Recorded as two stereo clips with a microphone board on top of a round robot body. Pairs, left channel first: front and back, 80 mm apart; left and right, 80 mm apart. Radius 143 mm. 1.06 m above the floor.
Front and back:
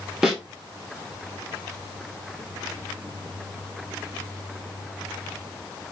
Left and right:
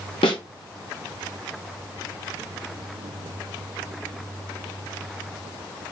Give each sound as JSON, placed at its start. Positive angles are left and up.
{"t": 0.2, "sound": "a snare drum", "azimuth_deg": 95, "distance_m": 0.6}